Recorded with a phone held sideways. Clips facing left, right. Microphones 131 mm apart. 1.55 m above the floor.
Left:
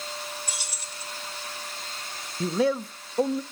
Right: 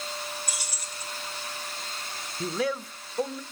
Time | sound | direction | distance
0.5 | keys jangling | 30° left (ahead or behind) | 4.5 m
2.4 | a man speaking | 25° left (ahead or behind) | 0.6 m